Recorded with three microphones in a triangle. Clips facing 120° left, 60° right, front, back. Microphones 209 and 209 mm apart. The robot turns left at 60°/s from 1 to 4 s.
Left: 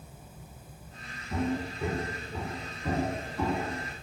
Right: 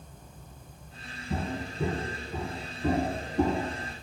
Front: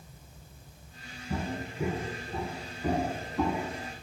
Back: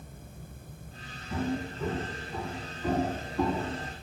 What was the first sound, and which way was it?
Footsteps, 40° right.